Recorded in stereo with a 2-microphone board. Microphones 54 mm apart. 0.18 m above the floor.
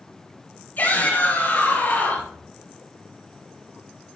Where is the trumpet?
No trumpet in this recording.